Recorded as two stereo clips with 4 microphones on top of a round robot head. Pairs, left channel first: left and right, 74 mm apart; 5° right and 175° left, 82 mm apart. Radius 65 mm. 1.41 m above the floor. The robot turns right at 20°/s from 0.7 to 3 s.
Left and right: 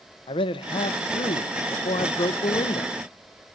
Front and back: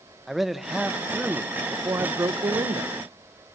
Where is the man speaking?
85° left, 1.1 m; by 2.9 s 130° left, 1.1 m.